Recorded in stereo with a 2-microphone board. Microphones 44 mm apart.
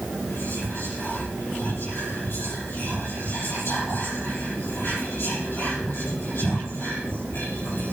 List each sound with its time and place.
0.3 s whispering: 65° left (ahead or behind), 7 m